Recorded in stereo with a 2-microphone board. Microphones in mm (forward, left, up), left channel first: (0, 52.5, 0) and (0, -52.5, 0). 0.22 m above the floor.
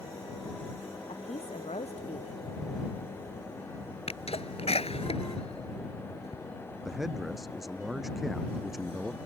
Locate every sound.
1.1 s a woman speaking: 80° left
4.1 s a sneeze: 70° left (ahead or behind)
6.8 s a man speaking: centre (ahead or behind)